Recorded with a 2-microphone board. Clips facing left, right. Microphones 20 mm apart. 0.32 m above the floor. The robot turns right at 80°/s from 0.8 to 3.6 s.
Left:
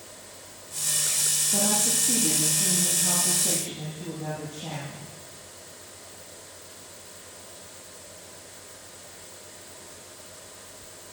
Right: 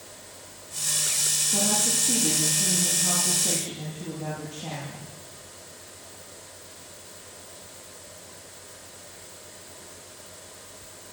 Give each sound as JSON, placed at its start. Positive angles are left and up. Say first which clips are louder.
{"t": 1.5, "sound": "a woman speaking", "louder": "even", "azimuth_deg": 130, "distance_m": 9.0}